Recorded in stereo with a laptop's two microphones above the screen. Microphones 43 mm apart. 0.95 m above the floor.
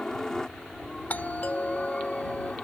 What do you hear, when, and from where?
0.0 s a helicopter: 15° left (ahead or behind)
1.1 s a doorbell: 40° left (ahead or behind)